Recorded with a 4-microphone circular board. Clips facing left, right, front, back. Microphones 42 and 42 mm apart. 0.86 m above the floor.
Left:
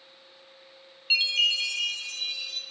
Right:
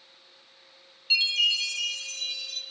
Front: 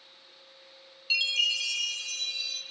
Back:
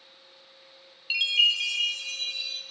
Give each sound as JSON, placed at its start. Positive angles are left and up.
{"t": 1.1, "sound": "a chime", "azimuth_deg": 130, "distance_m": 0.8}